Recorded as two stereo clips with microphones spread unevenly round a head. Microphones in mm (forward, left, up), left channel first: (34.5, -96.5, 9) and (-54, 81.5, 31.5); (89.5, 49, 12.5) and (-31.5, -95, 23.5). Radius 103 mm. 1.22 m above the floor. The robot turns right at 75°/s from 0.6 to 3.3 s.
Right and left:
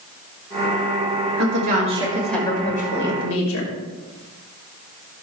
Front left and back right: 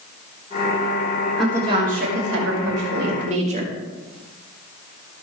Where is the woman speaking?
135° left, 6 m; by 3.7 s 80° right, 6 m.